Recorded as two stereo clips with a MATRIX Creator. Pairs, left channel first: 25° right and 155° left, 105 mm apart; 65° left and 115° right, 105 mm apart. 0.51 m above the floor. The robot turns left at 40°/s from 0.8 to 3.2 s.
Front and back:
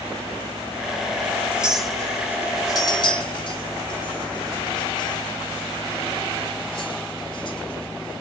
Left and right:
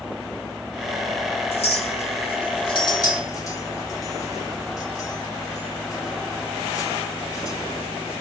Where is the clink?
80° left, 1.6 m; by 8.2 s 10° left, 1.6 m.